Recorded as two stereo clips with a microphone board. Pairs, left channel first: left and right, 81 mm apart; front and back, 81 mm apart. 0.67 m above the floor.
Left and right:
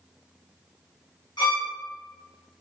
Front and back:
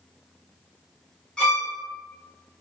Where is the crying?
I don't hear crying.